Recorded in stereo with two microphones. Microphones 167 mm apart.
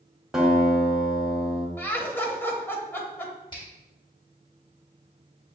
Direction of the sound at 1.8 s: 15° left (ahead or behind).